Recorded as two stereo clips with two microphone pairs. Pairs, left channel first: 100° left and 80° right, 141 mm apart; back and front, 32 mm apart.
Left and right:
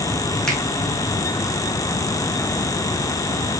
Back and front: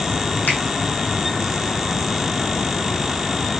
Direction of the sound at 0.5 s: 170° right.